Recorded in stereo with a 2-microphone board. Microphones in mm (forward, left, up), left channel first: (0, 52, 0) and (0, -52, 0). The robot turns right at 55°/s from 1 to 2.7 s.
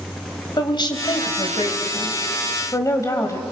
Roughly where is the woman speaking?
Ahead left.